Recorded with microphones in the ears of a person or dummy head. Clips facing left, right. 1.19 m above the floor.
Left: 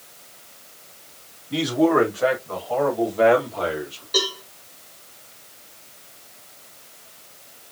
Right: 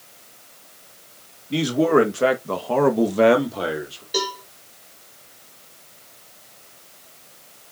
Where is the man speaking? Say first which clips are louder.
Right 1 dB; 35° right (ahead or behind), 2 m; by 4.0 s 30° right (ahead or behind), 1.9 m.